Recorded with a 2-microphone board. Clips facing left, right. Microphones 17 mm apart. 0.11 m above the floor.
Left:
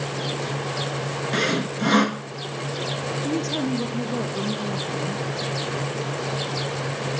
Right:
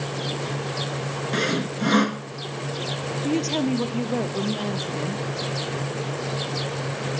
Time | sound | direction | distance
1.3 | sawing | 5° left (ahead or behind) | 0.6 m
3.2 | a woman speaking | 25° right (ahead or behind) | 2.5 m